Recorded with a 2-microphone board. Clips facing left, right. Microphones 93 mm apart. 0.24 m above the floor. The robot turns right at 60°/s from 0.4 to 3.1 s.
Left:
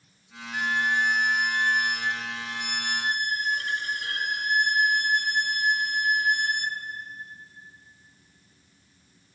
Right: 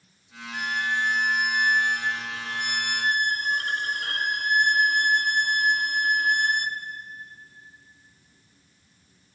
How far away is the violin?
About 0.9 m.